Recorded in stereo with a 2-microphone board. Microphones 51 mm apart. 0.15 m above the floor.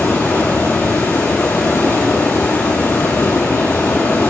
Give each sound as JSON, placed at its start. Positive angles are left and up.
{"t": 0.0, "sound": "running water", "side_deg": 60, "distance_m": 1.9}